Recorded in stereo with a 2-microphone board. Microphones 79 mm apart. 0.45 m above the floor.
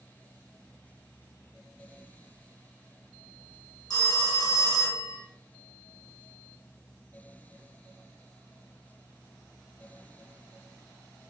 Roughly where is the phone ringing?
Left.